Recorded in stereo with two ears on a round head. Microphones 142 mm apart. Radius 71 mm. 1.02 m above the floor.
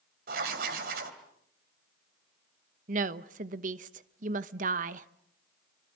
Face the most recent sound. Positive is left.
turn(degrees=-50)  # may be behind; listen again after turning